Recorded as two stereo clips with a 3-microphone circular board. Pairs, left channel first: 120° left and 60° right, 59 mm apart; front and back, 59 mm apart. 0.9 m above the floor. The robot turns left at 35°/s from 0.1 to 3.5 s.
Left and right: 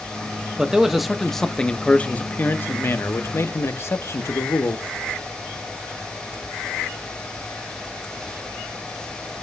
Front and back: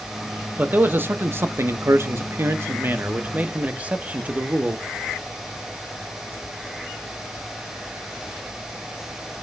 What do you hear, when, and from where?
0.6 s a man speaking: 130° right, 0.9 m; by 4.8 s 125° left, 0.9 m